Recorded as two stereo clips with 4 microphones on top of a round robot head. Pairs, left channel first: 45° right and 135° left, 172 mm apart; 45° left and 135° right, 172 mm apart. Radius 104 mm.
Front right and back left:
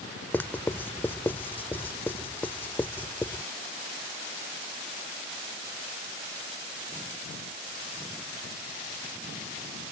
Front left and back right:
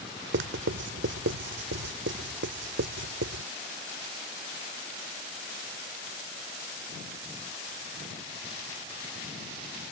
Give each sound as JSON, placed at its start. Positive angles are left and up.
{"t": 0.3, "sound": "writing", "azimuth_deg": -120}